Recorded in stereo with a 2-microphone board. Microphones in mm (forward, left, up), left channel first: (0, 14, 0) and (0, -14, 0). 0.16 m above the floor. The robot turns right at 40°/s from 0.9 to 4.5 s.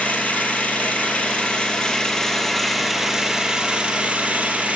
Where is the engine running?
105° left, 0.9 m; by 4.8 s 115° right, 0.9 m.